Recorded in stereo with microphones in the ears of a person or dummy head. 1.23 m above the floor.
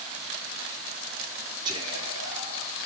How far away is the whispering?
About 3.5 m.